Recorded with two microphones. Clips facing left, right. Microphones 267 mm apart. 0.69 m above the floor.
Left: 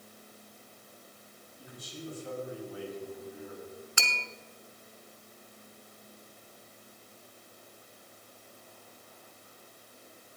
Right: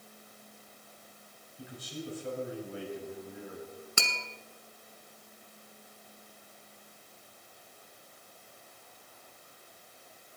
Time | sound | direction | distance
1.6 | a man speaking | 70° right (ahead or behind) | 4.5 m
4.0 | tapping | 45° right (ahead or behind) | 1.1 m